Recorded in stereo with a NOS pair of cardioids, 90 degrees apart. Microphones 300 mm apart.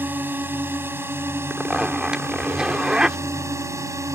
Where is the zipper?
5° right.